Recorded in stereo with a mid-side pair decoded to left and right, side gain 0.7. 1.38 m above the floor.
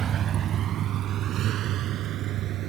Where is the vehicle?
40° right; by 2.7 s 55° right.